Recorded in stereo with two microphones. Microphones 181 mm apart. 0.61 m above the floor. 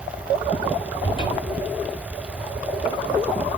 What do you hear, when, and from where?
1.0 s a cupboard door: 30° left (ahead or behind), 8 m